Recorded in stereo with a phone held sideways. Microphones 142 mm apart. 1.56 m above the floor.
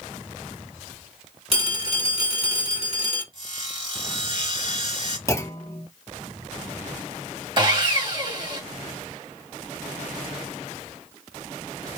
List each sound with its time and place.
1.5 s a phone ringing: 45° right (ahead or behind), 2.5 m
3.3 s sawing: 35° right (ahead or behind), 3 m
5.3 s a clunk: 20° left (ahead or behind), 0.6 m
7.6 s sawing: 35° right (ahead or behind), 1.8 m